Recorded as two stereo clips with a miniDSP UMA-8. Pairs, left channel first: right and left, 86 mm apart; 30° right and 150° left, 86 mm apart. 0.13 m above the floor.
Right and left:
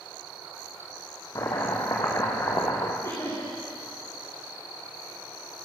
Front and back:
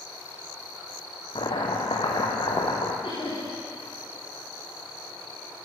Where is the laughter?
45° right, 8 m.